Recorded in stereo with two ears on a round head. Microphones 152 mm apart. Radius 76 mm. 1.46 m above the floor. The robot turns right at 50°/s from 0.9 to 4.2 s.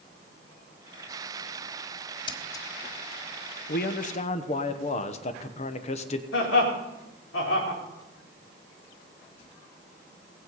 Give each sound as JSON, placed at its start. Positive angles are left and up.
{"t": 2.3, "sound": "scissors", "side_deg": 30, "distance_m": 1.4}
{"t": 3.7, "sound": "a man speaking", "side_deg": 65, "distance_m": 1.2}
{"t": 6.3, "sound": "laughter", "side_deg": 80, "distance_m": 4.5}